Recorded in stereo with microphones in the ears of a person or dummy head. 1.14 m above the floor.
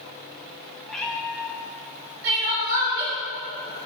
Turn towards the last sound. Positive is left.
turn(degrees=-70)  # may be behind; listen again after turning